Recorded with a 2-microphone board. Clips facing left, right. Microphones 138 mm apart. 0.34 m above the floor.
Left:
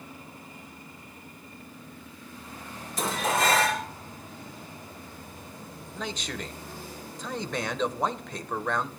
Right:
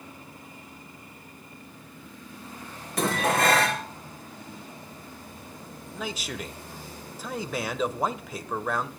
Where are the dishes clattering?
65° right (ahead or behind), 3.5 m.